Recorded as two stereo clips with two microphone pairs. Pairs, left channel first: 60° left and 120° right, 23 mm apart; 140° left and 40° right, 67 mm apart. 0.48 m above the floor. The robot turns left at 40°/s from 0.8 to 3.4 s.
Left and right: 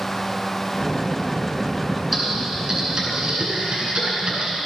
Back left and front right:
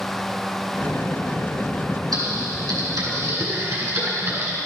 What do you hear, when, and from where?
2.1 s typing on a keyboard: 25° right, 5 m; by 4.6 s 75° right, 5 m